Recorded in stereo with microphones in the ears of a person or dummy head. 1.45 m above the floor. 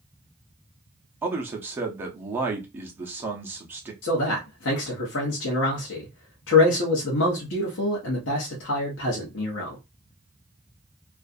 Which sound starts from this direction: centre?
A man speaking, at 1.2 s.